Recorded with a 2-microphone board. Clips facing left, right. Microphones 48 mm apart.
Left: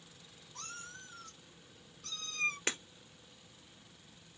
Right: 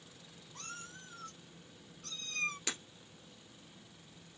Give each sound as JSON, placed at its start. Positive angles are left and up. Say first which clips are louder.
{"t": 0.6, "sound": "a cat meowing", "louder": "even", "side_deg": -25, "distance_m": 2.0}
{"t": 2.7, "sound": "breaking glass", "louder": "left 4 dB", "side_deg": 35, "distance_m": 1.4}